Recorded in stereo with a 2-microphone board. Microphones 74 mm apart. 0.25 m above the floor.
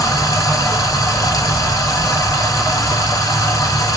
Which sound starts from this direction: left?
Running water, at 0.0 s.